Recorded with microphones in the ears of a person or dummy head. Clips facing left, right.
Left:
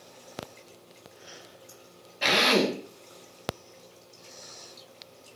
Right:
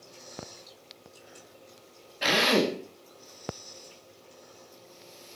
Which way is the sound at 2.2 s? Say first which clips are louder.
Even; 10° right (ahead or behind).